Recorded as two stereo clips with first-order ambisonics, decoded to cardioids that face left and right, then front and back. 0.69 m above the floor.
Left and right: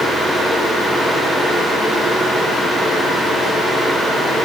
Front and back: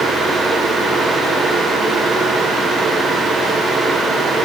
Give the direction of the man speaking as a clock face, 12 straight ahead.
I don't hear a man speaking.